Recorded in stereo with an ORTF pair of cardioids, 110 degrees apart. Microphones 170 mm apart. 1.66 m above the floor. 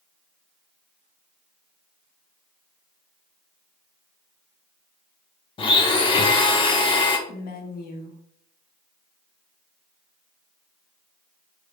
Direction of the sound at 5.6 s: 30° left.